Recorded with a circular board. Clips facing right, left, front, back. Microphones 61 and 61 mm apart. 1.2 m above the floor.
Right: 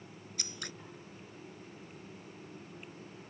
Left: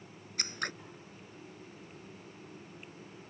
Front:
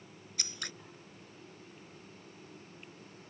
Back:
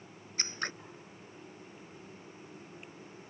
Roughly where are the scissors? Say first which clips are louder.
Left 8 dB, back 7 dB; behind left.